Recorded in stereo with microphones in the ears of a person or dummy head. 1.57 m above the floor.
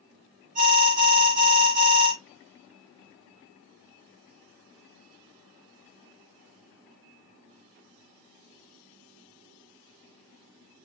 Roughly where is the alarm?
Right.